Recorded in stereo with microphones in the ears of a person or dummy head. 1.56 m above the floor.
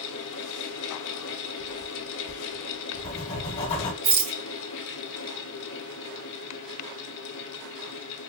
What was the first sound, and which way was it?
A fan, 75° left (ahead or behind).